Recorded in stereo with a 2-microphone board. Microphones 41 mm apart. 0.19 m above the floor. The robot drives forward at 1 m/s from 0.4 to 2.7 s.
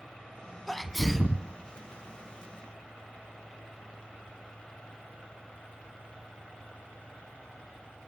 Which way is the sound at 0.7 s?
5° left (ahead or behind).